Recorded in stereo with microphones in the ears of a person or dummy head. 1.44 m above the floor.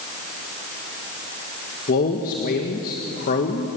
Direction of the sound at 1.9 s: 40° left (ahead or behind).